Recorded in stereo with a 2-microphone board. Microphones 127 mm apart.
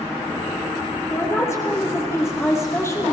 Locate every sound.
1.1 s a woman speaking: 20° left (ahead or behind), 3.5 m